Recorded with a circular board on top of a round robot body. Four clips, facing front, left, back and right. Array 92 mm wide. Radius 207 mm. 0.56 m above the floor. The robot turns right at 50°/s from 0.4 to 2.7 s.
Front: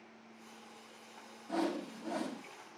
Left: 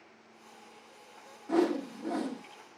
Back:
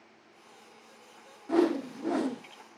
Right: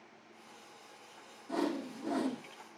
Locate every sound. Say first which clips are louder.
1.5 s a whoosh: left 7 dB, back 10 dB; 140° left, 1.7 m; by 2.4 s 170° right, 1.7 m